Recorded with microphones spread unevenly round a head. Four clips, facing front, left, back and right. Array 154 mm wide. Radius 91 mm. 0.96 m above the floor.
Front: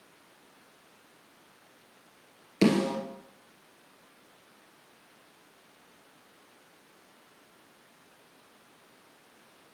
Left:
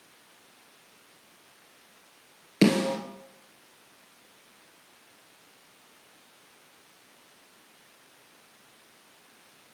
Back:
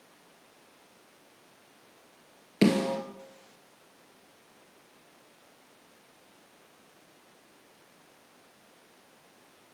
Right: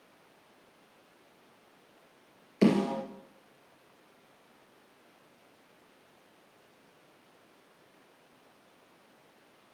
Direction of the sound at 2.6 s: 85° left.